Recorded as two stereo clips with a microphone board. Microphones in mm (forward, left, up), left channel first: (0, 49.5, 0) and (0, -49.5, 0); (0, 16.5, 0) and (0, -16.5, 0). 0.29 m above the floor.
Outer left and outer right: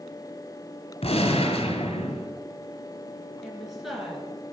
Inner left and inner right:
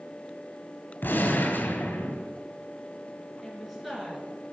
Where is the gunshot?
75° left (ahead or behind), 2 m.